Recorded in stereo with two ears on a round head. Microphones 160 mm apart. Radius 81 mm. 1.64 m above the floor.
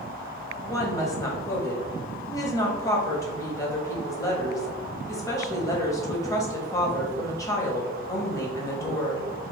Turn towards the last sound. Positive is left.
turn(degrees=20)  # may be behind; listen again after turning